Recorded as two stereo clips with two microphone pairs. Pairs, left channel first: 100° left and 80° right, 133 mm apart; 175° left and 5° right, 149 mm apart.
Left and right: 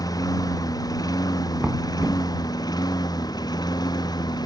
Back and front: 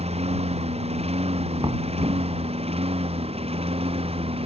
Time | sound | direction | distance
0.0 | a lawn mower | 40° left | ?
1.6 | knocking | 10° right | ?